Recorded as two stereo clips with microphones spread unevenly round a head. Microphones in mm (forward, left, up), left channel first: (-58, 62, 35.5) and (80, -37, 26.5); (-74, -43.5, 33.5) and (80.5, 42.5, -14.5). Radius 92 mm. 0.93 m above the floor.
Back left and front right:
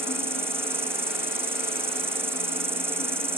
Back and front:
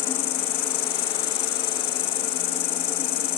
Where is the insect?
110° right.